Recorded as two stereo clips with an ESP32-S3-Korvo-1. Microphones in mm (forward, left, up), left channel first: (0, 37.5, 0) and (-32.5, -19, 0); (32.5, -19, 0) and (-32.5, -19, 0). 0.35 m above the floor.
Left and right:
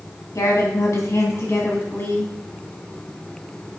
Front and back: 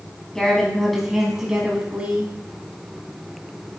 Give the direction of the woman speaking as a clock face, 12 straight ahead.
9 o'clock.